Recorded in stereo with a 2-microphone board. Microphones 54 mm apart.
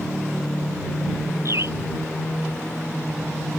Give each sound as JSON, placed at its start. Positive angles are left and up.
{"t": 1.4, "sound": "a bird", "side_deg": -55}